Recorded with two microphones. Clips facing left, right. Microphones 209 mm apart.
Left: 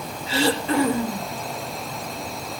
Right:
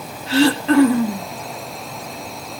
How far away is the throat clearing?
About 1.8 m.